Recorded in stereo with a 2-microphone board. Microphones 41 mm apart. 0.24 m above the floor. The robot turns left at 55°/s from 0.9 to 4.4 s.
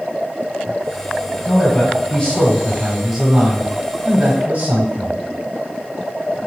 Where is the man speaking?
85° left, 1.3 m; by 5.2 s 80° right, 1.3 m.